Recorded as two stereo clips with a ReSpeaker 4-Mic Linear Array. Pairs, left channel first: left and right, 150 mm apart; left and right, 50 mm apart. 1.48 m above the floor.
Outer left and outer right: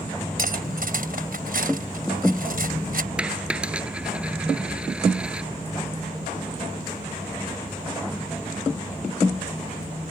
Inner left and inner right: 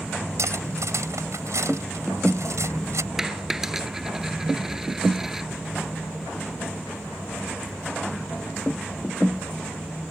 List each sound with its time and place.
0.4 s cutlery clinking: 75° right (ahead or behind)
3.2 s a dropped coin: 5° right (ahead or behind)